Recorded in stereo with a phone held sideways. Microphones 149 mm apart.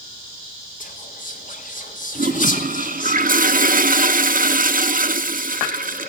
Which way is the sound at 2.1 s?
65° right (ahead or behind).